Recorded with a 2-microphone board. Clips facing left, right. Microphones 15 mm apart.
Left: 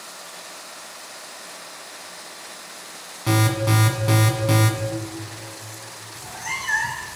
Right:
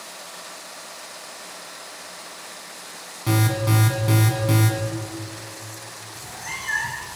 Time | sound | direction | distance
3.3 | an alarm | 10° left (ahead or behind) | 1.6 m
6.2 | a cat meowing | 10° left (ahead or behind) | 1.5 m